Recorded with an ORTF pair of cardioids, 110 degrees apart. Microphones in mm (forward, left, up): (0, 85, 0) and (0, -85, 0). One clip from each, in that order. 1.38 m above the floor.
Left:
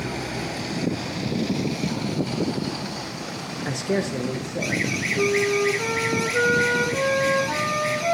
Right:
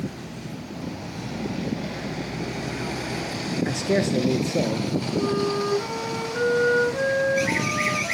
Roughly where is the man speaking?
Ahead.